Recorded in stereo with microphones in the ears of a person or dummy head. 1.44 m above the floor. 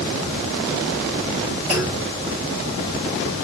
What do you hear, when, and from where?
1.7 s a clunk: 10° right (ahead or behind), 0.6 m